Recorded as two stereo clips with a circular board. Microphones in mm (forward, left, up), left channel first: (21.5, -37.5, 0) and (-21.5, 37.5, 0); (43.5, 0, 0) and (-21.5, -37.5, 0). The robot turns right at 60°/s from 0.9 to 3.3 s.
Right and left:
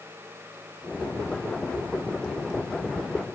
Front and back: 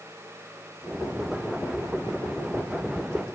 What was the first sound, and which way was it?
Only background noise.